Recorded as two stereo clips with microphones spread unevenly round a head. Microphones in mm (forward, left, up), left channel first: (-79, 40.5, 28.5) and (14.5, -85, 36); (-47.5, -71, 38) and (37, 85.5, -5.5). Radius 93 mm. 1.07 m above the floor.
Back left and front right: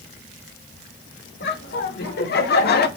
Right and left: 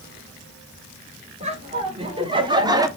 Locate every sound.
1.4 s laughter: 115° left, 1.7 m; by 2.9 s 125° left, 0.9 m